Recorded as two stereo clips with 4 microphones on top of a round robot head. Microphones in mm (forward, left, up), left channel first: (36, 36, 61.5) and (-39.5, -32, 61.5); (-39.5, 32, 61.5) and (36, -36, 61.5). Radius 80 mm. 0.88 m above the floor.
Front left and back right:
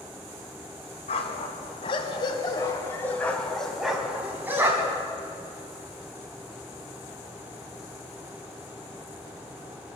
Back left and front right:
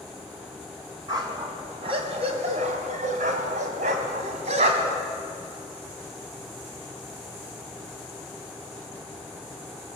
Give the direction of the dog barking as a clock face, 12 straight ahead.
12 o'clock.